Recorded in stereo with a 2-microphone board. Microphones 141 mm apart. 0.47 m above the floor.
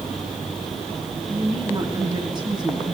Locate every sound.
1.3 s a woman speaking: 35° right (ahead or behind), 3.5 m